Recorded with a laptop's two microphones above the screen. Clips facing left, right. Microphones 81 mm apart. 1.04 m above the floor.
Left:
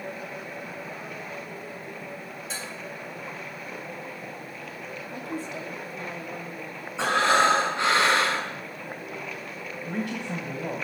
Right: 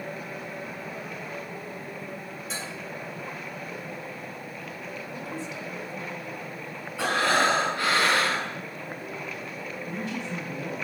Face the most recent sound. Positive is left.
turn(degrees=60)  # may be behind; listen again after turning